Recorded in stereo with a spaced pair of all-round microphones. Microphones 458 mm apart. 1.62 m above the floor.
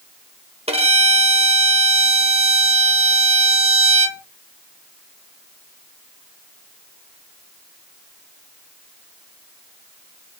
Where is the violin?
15° right (ahead or behind), 2.5 m.